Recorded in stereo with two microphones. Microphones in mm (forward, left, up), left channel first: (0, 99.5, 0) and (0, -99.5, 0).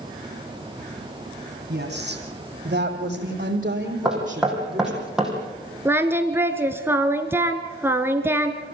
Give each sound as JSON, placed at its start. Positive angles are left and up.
{"t": 1.7, "sound": "a woman speaking", "side_deg": -60, "distance_m": 5.0}
{"t": 4.0, "sound": "knocking", "side_deg": -5, "distance_m": 4.5}
{"t": 5.8, "sound": "singing", "side_deg": -10, "distance_m": 1.5}